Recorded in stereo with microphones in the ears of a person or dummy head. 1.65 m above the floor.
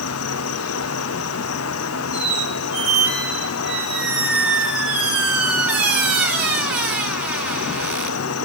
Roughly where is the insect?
Left.